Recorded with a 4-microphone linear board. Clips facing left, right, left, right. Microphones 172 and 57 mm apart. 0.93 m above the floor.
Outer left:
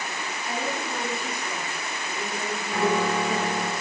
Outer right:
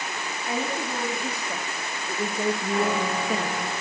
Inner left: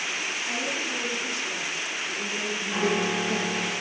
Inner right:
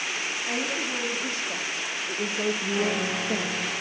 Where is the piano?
20° left (ahead or behind), 6 m.